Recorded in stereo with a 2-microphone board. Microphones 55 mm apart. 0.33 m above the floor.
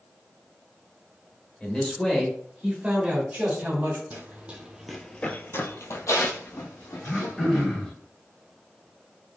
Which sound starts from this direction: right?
Running footsteps, at 4.1 s.